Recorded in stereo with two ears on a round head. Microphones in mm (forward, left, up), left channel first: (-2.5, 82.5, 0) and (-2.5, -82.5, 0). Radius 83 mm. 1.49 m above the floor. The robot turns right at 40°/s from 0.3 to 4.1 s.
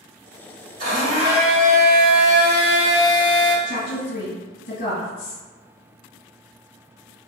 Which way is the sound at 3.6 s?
80° left.